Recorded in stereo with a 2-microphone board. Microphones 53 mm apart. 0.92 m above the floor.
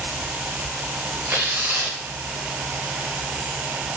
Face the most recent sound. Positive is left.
turn(degrees=-45)  # may be behind; listen again after turning